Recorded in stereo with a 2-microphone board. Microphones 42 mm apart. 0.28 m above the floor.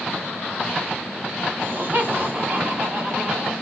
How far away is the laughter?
About 1.7 m.